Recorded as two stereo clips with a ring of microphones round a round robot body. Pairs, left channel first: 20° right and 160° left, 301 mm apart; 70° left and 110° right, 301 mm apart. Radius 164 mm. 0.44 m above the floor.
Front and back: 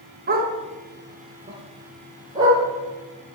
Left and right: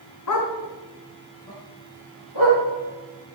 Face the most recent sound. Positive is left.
turn(degrees=80)